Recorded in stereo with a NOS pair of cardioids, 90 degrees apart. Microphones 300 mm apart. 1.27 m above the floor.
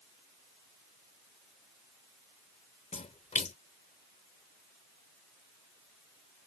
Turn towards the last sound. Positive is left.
turn(degrees=25)